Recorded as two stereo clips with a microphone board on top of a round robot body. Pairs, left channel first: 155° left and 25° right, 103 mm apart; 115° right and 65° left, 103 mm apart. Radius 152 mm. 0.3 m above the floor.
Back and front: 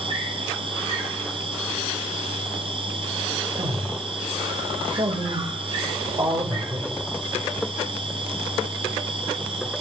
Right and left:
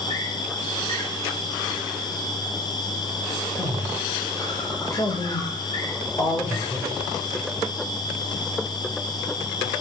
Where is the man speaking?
55° right, 3 m.